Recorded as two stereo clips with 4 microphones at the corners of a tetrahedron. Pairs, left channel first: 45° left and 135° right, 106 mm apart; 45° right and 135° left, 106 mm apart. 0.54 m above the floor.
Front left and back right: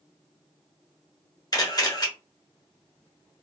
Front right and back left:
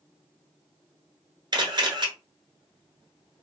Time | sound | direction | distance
1.5 | a camera shutter | 90° left | 1.1 m